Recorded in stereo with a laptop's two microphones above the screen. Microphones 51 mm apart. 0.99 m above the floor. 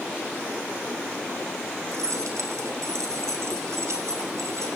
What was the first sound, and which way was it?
Keys jangling, 80° right.